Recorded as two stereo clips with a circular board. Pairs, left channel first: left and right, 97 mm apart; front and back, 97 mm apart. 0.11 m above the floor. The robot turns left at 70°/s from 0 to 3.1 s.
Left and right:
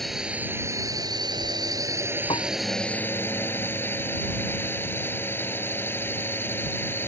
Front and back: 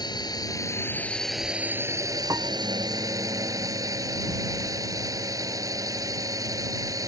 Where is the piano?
120° left; by 2.5 s 110° left.